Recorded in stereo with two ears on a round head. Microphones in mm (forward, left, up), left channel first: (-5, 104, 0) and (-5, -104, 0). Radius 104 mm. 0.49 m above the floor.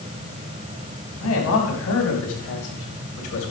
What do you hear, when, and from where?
1.2 s a man speaking: 75° left (ahead or behind), 4 m; by 3.5 s 65° left (ahead or behind), 3 m